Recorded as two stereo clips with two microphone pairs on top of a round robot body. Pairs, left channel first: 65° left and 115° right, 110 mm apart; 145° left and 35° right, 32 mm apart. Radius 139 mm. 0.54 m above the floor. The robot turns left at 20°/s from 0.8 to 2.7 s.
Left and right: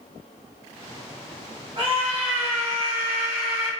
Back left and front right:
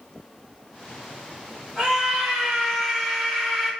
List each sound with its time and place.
1.8 s a scream: 100° right, 2 m; by 3.7 s 120° right, 2 m